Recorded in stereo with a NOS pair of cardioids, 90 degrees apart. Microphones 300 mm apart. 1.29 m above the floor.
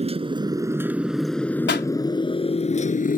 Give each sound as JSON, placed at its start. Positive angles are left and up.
{"t": 0.0, "sound": "a motorcycle", "azimuth_deg": -20}
{"t": 1.7, "sound": "a pop", "azimuth_deg": 35}